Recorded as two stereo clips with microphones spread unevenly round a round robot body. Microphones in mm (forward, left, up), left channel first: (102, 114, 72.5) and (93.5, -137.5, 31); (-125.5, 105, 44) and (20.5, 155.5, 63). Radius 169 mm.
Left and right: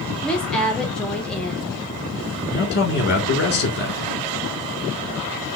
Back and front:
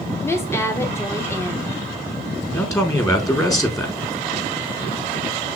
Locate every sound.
0.2 s a woman speaking: 165° right, 0.9 m
2.5 s a man speaking: 140° left, 1.9 m